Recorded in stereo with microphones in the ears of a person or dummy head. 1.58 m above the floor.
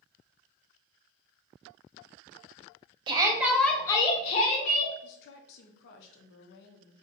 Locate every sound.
3.1 s a shout: 25° right (ahead or behind), 0.6 m; by 4.9 s 50° left (ahead or behind), 0.9 m
5.0 s a woman speaking: 60° left (ahead or behind), 0.5 m